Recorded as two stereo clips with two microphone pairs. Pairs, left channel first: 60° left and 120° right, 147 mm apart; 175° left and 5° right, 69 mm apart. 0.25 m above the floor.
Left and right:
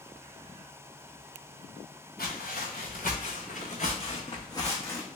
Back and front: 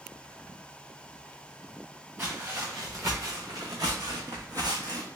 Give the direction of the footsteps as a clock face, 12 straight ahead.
10 o'clock.